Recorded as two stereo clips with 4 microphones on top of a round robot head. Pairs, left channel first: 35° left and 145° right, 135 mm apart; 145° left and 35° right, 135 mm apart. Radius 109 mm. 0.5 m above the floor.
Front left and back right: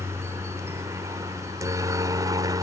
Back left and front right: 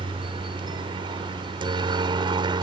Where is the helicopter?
80° right; by 2.6 s 85° right.